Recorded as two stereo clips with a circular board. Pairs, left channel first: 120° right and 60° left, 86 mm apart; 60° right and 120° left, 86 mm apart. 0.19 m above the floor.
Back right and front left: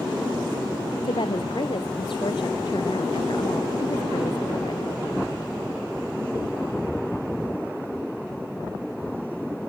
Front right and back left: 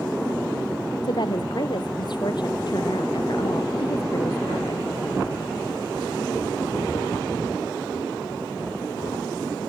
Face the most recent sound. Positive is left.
turn(degrees=-95)